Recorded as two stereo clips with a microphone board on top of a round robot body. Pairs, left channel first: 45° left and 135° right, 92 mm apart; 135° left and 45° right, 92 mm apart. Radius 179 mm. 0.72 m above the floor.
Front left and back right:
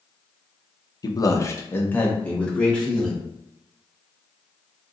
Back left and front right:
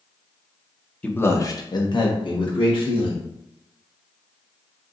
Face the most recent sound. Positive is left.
turn(degrees=130)